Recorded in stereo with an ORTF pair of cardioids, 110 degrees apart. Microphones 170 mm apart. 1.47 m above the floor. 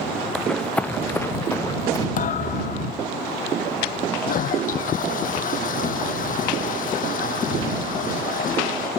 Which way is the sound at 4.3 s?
55° left.